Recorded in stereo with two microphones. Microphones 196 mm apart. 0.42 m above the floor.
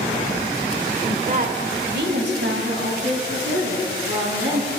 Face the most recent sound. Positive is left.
turn(degrees=-80)